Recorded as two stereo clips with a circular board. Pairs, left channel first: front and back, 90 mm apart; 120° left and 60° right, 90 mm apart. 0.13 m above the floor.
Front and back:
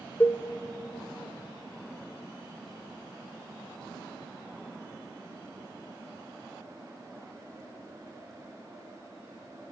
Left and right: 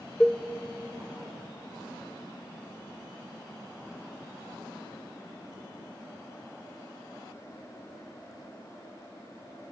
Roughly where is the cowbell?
Ahead left.